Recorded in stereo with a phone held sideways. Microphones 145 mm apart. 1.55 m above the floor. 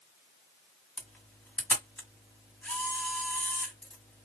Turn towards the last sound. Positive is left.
turn(degrees=10)  # may be behind; listen again after turning